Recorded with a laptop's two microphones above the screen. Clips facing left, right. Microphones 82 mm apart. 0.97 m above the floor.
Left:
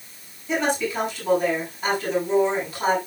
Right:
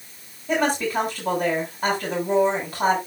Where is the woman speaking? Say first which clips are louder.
Right 1 dB; 50° right (ahead or behind), 7.5 m.